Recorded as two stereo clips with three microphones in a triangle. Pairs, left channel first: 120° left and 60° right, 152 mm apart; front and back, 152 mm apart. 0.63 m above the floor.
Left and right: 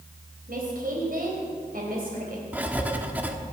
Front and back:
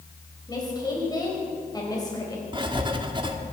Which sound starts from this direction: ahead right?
A woman speaking, at 0.5 s.